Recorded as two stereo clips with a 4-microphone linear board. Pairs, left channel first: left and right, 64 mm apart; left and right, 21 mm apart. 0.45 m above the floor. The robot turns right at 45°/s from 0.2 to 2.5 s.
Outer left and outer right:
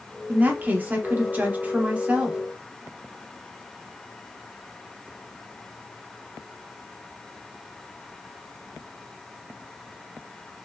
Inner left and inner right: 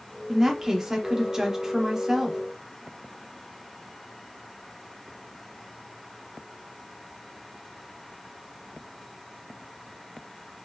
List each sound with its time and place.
0.3 s a woman speaking: 20° right (ahead or behind), 0.7 m; by 2.4 s 10° right (ahead or behind), 0.7 m